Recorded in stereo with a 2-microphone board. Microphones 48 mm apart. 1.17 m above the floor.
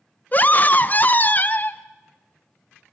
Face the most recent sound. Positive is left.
turn(degrees=35)  # may be behind; listen again after turning